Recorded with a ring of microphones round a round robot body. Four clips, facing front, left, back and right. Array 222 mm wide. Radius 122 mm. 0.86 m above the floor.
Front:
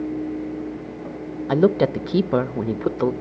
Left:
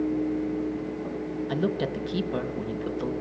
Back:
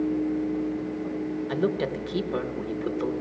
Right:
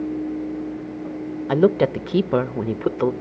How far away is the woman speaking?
About 0.8 m.